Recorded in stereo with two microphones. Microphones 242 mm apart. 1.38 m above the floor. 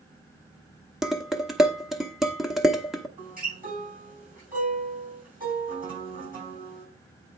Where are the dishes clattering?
Centre (ahead or behind), 0.7 m.